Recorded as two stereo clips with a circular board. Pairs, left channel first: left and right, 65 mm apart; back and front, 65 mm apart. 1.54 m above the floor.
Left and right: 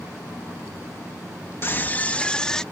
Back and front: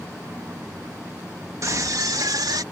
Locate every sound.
1.6 s a scream: 35° left; by 2.6 s 10° left